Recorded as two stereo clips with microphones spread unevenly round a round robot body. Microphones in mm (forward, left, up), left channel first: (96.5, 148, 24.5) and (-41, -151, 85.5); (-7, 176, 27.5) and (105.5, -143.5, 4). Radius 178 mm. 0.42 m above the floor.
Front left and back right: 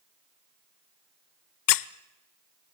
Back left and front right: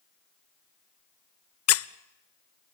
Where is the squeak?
60° left, 0.6 m.